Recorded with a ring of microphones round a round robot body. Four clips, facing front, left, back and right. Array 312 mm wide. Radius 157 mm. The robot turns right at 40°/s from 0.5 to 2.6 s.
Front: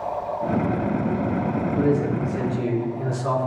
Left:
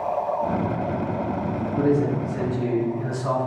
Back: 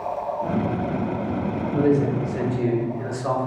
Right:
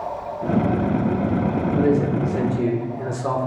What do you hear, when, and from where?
1.7 s a man speaking: 135° right, 1.7 m; by 3.5 s 100° right, 1.7 m